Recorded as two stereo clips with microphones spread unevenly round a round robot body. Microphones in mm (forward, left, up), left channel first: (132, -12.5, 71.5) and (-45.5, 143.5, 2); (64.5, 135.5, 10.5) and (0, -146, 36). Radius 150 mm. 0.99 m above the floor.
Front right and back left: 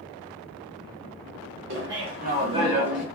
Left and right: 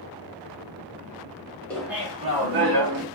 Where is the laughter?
160° left, 1.2 m; by 3.0 s 135° right, 1.2 m.